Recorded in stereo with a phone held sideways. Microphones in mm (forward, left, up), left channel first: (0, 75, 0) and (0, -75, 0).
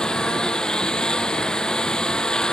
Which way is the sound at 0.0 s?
5° left (ahead or behind).